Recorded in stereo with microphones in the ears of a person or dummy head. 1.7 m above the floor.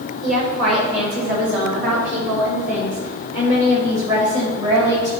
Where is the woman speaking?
50° right (ahead or behind), 4.5 m; by 5.1 s 35° right (ahead or behind), 6.5 m.